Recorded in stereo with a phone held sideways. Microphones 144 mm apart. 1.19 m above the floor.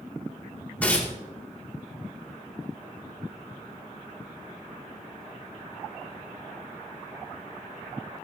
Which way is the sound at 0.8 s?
10° left (ahead or behind).